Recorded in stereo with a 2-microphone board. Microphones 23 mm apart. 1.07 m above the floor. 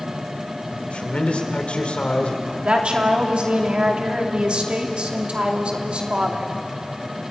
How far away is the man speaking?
About 3 m.